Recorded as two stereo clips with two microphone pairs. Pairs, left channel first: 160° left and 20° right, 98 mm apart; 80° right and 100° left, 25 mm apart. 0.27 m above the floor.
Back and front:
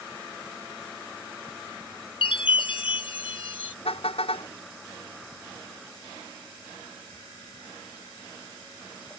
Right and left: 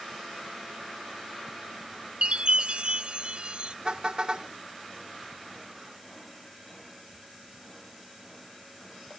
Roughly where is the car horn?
Behind left.